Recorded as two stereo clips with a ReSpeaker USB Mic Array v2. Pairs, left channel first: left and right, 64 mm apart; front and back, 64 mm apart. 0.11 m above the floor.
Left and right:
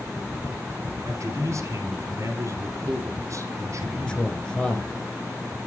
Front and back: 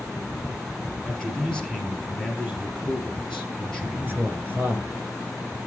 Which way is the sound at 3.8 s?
155° left.